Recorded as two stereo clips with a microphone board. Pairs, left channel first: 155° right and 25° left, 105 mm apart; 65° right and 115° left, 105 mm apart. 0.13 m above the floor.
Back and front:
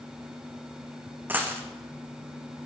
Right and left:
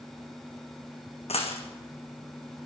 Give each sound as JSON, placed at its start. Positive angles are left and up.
{"t": 1.3, "sound": "a dropped coin", "azimuth_deg": -50, "distance_m": 2.5}